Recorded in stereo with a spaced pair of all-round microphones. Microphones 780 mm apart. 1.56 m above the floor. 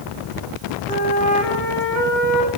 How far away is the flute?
About 9 m.